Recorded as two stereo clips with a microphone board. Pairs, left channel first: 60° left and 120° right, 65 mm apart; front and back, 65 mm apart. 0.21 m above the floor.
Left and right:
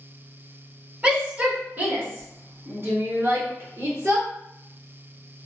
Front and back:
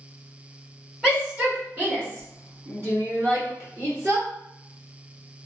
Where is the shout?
140° right, 1.2 m; by 4.3 s 150° right, 2.5 m.